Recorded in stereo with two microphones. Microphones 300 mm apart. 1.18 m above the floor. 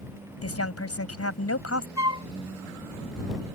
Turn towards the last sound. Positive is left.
turn(degrees=70)  # may be behind; listen again after turning